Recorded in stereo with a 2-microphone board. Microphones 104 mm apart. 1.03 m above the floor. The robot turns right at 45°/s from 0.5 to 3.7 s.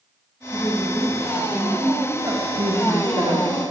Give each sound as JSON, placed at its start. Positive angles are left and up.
{"t": 0.5, "sound": "a woman speaking", "azimuth_deg": 145, "distance_m": 5.0}
{"t": 2.6, "sound": "a woman speaking", "azimuth_deg": -100, "distance_m": 2.5}